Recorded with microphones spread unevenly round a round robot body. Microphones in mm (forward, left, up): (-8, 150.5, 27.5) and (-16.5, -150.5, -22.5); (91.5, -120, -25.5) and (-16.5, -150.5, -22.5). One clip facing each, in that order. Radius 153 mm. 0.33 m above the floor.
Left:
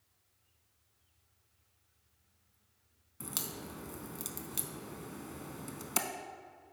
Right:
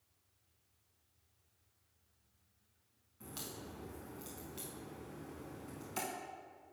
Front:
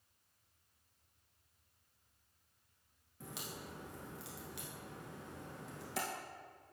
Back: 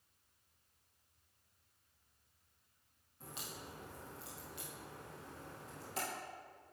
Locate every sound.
3.2 s a crack: 70° left, 0.8 m